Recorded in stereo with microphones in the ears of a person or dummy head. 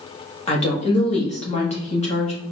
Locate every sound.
0.5 s a woman speaking: 35° left (ahead or behind), 1.2 m